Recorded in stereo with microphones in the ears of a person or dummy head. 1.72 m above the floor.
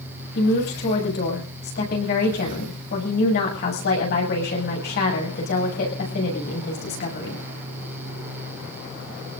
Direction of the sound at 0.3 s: 50° left (ahead or behind).